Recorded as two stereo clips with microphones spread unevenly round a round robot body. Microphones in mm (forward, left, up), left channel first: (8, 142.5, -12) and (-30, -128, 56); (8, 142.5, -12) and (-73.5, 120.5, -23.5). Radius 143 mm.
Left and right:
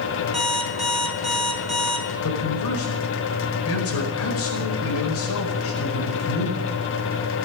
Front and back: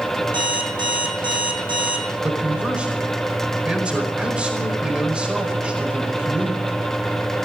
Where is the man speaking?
115° left, 4.5 m.